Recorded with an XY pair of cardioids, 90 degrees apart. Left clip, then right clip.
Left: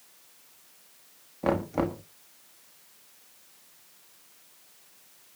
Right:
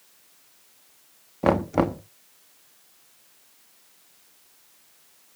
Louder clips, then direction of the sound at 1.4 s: Right 6 dB; 55° right.